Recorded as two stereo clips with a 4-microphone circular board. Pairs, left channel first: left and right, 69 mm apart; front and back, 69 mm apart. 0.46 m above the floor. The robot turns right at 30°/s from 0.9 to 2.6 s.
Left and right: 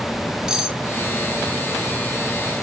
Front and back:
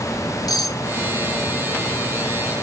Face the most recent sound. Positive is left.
turn(degrees=40)